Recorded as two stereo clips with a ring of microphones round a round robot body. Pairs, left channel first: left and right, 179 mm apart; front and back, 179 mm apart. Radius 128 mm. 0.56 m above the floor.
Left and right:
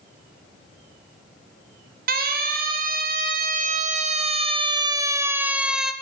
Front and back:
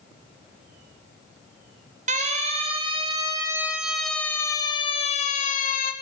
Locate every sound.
2.1 s a siren: 125° right, 3.5 m; by 5.9 s straight ahead, 2.5 m